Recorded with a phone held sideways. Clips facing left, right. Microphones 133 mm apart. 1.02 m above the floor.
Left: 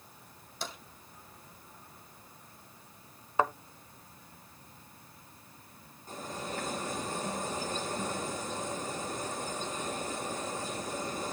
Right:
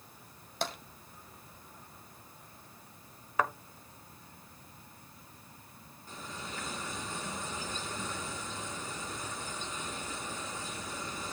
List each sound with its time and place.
0.6 s tapping: 70° right (ahead or behind), 2.0 m
3.4 s a thud: 25° left (ahead or behind), 0.9 m
6.1 s a bird: 40° left (ahead or behind), 4.5 m